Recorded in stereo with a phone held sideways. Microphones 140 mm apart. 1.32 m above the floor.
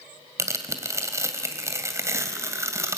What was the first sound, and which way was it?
Tearing paper, 20° right (ahead or behind).